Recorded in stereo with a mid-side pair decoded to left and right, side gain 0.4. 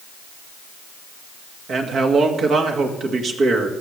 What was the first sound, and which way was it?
A man speaking, 65° right.